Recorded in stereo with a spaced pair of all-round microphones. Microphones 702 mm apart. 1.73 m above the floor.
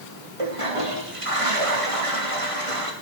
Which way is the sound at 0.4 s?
50° right (ahead or behind).